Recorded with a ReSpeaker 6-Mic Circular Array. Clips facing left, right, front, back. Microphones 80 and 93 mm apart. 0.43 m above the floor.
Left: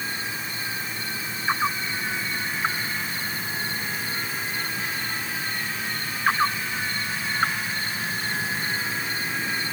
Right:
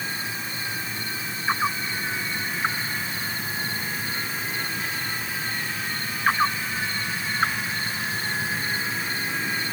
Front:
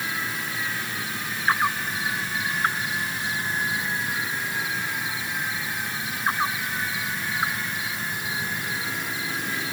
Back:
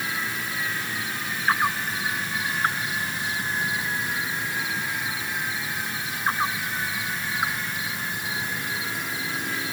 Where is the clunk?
I don't hear a clunk.